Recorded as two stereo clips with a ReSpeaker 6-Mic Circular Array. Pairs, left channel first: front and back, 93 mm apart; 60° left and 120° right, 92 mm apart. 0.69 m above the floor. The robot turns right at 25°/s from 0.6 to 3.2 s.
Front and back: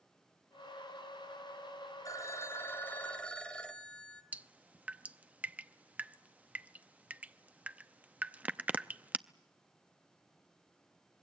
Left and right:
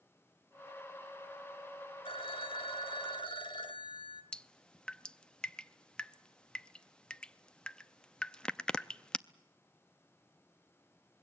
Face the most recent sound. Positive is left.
turn(degrees=130)